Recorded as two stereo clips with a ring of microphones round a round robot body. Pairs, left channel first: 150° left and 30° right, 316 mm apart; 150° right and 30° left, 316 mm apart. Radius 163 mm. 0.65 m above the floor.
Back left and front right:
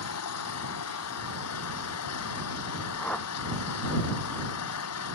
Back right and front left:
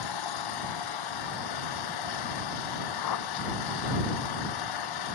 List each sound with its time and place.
0.0 s an engine running: 165° right
3.0 s a whoosh: 125° right